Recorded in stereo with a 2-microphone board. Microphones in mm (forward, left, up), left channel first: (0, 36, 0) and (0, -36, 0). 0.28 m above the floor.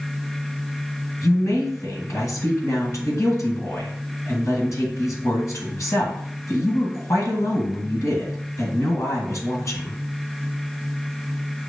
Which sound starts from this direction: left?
A woman speaking, at 1.2 s.